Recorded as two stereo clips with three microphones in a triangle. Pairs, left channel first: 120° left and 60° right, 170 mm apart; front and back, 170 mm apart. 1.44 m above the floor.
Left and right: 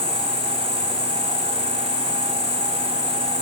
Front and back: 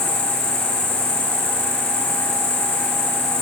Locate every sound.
0.0 s an insect: 170° right, 5 m